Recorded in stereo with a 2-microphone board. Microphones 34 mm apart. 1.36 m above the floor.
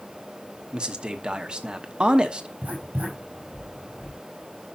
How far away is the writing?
About 6 m.